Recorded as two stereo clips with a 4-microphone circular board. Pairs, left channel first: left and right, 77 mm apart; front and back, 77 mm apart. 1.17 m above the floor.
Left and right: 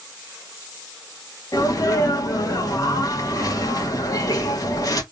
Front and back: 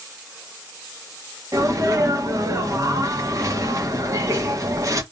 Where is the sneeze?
135° left, 1.4 m.